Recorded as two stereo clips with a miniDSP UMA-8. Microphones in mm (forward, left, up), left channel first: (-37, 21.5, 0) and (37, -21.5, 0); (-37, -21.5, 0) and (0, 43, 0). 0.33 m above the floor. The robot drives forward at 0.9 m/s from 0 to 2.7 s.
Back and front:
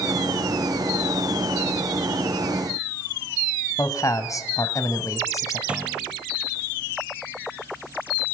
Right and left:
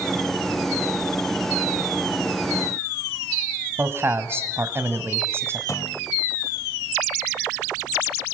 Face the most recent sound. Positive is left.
turn(degrees=-105)